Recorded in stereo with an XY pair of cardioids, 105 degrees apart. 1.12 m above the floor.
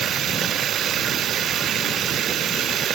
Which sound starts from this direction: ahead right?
Running water, at 0.0 s.